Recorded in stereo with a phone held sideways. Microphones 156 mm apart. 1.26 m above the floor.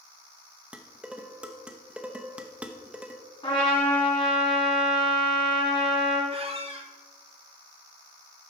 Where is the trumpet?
30° left (ahead or behind), 3 m.